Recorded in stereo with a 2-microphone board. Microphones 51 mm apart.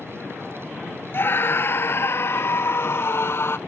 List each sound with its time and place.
1.1 s a scream: 50° left (ahead or behind); by 3.6 s 55° left (ahead or behind)